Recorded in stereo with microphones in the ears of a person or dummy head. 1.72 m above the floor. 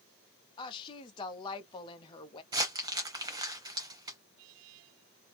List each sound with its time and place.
0.6 s a woman speaking: 25° left (ahead or behind), 0.7 m
2.5 s crumpling: 20° right (ahead or behind), 0.7 m